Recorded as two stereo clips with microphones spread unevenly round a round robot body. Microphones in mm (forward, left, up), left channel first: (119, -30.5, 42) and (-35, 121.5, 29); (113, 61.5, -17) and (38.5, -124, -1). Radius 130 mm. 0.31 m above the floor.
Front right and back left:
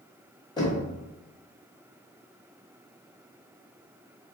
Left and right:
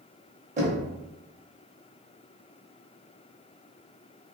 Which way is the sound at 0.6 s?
105° right.